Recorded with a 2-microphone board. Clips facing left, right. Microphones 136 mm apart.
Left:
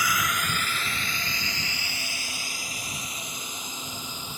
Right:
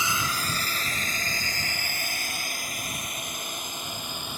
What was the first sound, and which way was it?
A drone, 25° right (ahead or behind).